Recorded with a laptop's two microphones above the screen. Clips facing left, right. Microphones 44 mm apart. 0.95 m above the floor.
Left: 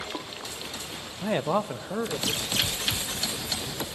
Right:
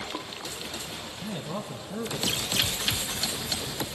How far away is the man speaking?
About 0.7 m.